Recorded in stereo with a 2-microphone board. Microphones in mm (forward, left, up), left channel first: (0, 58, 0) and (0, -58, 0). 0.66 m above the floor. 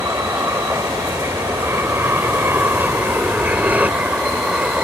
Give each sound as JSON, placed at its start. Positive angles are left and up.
{"t": 0.0, "sound": "an aircraft", "side_deg": -30}